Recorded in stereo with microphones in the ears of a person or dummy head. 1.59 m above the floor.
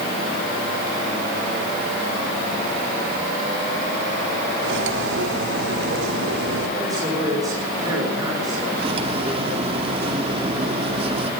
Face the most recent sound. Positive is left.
turn(degrees=-40)  # may be behind; listen again after turning